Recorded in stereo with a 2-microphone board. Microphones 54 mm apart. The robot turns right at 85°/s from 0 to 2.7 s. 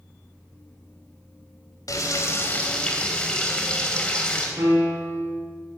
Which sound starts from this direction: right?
A piano, at 4.6 s.